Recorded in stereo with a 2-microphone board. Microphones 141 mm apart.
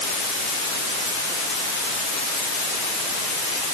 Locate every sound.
Only background noise.